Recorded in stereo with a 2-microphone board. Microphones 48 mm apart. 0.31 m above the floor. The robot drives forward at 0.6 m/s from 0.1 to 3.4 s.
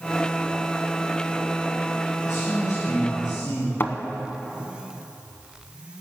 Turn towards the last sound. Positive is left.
turn(degrees=50)  # may be behind; listen again after turning